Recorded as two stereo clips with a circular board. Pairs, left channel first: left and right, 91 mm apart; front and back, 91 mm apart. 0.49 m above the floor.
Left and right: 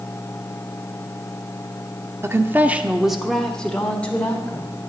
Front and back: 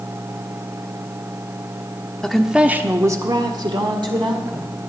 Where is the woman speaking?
80° right, 0.7 m; by 4.8 s 160° left, 1.6 m.